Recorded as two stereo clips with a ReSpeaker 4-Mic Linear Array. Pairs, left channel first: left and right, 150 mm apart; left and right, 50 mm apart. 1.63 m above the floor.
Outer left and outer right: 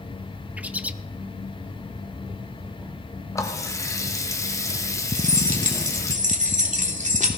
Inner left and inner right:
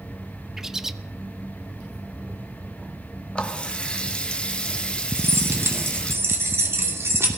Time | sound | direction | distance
0.6 | a bird | 10° right (ahead or behind) | 0.6 m
3.4 | a running tap | 20° left (ahead or behind) | 1.3 m
5.2 | keys jangling | 55° right (ahead or behind) | 2.5 m